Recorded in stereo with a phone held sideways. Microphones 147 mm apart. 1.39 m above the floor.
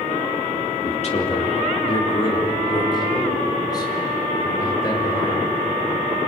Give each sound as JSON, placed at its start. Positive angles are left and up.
{"t": 0.8, "sound": "a man speaking", "side_deg": 50, "distance_m": 2.5}